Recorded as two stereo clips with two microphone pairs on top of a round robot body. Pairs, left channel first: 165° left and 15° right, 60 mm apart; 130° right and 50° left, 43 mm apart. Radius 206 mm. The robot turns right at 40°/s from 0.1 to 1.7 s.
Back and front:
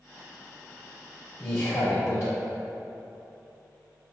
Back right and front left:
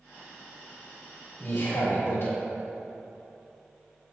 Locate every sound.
1.4 s a man speaking: 165° right, 1.2 m; by 2.3 s 155° right, 1.2 m